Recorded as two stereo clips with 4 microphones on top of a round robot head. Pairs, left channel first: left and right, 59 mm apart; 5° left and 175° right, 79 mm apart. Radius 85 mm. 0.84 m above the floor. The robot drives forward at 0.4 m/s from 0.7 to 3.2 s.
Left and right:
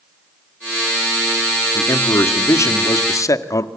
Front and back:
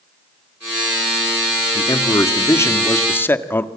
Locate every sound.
1.8 s a man speaking: 50° left, 2.0 m; by 3.7 s 65° left, 1.7 m